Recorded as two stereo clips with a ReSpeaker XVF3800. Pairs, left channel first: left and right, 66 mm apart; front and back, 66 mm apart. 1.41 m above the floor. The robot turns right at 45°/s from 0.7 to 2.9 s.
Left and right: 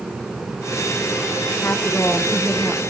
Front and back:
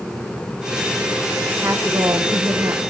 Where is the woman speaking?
130° left, 0.9 m; by 2.8 s 175° right, 0.9 m.